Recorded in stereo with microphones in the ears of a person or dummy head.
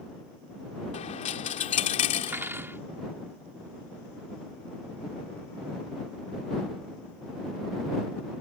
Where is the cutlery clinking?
10° right (ahead or behind).